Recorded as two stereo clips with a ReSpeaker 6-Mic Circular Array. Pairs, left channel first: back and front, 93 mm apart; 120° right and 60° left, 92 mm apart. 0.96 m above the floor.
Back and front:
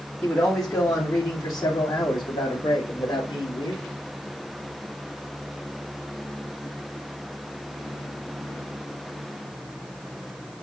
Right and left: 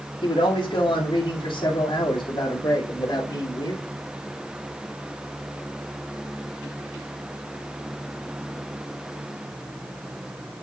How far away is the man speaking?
About 2.5 m.